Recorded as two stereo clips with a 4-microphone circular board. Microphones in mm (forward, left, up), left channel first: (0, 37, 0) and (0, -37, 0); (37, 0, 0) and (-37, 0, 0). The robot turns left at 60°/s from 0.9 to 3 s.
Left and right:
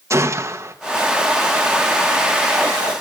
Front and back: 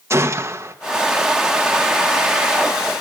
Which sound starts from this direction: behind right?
A gunshot, at 0.1 s.